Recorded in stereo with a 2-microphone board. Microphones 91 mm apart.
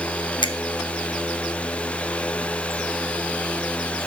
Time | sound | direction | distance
0.4 | a finger snap | 55° left (ahead or behind) | 0.8 m